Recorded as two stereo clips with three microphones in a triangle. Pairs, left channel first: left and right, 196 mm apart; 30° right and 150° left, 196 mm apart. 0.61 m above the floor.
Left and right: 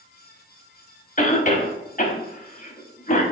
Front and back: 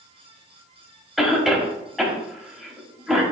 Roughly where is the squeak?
I don't hear a squeak.